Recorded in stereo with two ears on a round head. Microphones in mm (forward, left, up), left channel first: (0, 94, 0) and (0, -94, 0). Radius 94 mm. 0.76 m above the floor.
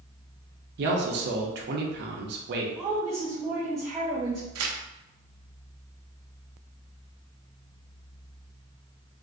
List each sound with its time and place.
0.8 s a man speaking: 50° right (ahead or behind), 0.6 m
2.8 s a woman speaking: centre (ahead or behind), 1.0 m
4.5 s tearing paper: 80° right, 0.6 m